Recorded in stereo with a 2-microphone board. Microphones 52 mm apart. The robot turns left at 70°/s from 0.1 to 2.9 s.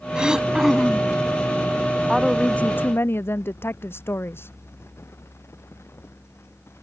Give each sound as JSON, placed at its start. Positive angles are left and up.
{"t": 0.1, "sound": "throat clearing", "side_deg": -15}
{"t": 2.1, "sound": "a woman speaking", "azimuth_deg": -170}